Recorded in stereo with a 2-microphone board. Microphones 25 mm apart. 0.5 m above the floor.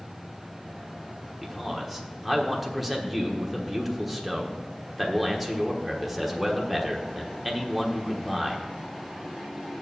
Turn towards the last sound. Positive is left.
turn(degrees=-5)  # may be behind; listen again after turning